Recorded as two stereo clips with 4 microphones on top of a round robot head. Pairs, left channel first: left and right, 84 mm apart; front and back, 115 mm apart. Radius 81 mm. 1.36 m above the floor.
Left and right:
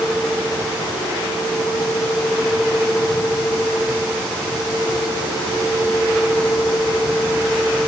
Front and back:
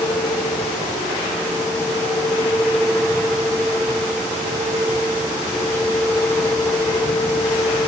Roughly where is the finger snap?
I don't hear a finger snap.